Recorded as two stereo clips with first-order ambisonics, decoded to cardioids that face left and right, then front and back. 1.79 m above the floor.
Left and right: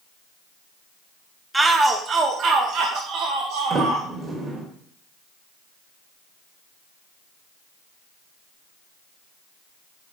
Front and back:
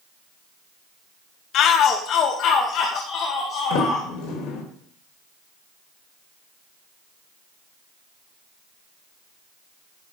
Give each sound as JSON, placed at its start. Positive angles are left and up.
{"t": 1.5, "sound": "a shout", "azimuth_deg": -10, "distance_m": 0.7}
{"t": 3.7, "sound": "a sliding door", "azimuth_deg": -20, "distance_m": 2.5}